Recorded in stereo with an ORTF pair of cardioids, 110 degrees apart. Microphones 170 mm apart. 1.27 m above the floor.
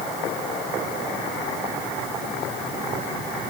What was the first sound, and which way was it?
Only background noise.